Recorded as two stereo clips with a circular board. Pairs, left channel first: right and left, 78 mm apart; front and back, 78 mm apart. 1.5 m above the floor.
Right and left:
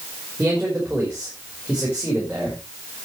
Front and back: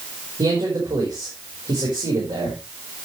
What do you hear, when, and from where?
0.4 s a man speaking: 165° left, 5.5 m